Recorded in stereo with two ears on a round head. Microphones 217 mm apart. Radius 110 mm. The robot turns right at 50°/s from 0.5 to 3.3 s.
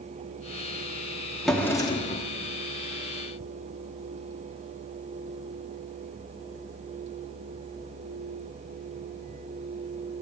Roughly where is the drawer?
Ahead.